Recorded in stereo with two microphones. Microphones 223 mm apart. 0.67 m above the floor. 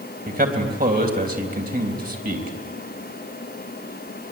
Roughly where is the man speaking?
Right.